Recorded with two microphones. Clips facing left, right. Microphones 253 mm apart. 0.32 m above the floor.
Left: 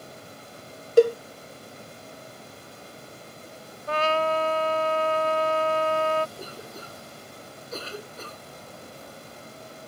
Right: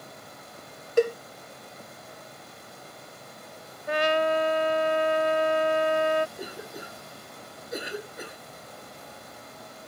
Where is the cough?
15° right (ahead or behind).